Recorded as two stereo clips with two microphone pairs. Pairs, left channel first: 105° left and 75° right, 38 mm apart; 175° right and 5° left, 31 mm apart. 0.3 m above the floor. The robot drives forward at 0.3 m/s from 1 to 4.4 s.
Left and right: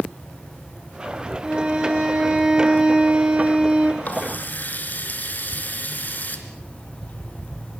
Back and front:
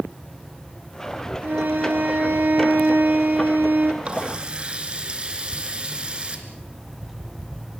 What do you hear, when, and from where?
1.4 s a violin: 5° right, 3 m; by 3.9 s 10° right, 2.5 m
4.0 s a running tap: 65° left, 3 m
6.5 s an alarm clock: 90° left, 0.8 m